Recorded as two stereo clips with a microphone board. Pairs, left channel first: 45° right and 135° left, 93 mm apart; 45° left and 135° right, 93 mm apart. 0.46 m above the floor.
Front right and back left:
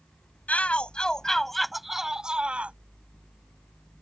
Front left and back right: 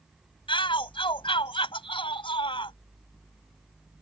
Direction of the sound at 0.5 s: 30° left.